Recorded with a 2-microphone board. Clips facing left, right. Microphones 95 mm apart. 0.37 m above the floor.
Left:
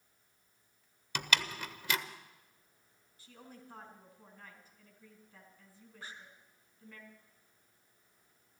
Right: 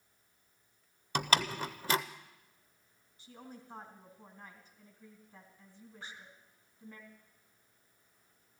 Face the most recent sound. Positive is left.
turn(degrees=0)  # may be behind; listen again after turning